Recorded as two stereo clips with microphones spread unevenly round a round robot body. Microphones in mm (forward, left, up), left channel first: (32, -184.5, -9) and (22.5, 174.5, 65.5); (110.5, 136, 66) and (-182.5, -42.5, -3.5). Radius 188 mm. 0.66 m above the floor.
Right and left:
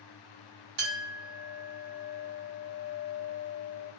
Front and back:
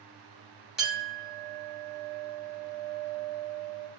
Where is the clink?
125° left, 2.5 m.